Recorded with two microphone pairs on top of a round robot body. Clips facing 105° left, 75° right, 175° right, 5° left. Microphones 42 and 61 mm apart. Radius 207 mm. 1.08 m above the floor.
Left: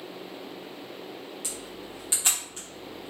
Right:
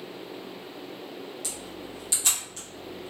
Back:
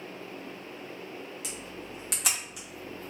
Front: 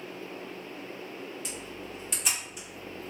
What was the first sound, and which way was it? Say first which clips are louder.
A camera shutter: right 1 dB, front 1 dB; 165° left.